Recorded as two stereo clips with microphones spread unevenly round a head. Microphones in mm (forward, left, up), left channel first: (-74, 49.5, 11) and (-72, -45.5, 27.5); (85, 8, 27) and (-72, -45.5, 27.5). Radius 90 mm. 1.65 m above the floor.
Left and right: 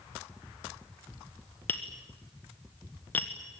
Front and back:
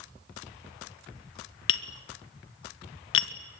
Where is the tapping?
10° left, 1.2 m.